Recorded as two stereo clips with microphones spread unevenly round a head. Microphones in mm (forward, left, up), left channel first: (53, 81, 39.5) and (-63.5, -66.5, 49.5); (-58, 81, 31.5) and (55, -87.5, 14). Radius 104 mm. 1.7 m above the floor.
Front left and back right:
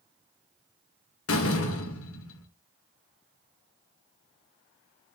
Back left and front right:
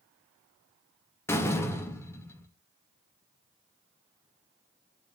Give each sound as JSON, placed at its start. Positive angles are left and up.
{"t": 1.3, "sound": "a door slam", "azimuth_deg": 45, "distance_m": 2.5}